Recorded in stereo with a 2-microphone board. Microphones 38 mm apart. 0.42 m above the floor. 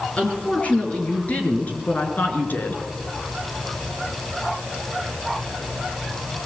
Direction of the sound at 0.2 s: 35° left (ahead or behind).